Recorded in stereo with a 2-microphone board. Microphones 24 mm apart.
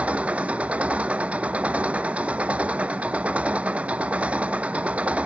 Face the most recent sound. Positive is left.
turn(degrees=-70)  # may be behind; listen again after turning